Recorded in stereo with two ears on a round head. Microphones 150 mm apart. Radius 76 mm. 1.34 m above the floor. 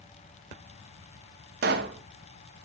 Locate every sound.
1.6 s a pop: 65° right (ahead or behind), 0.9 m